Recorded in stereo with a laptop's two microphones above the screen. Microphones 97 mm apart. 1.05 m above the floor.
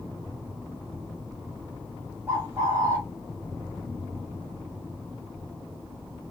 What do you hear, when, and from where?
2.3 s a bird: 25° right (ahead or behind), 0.9 m